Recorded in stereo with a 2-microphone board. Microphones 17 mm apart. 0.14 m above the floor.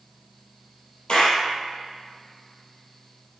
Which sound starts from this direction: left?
A clap, at 1.1 s.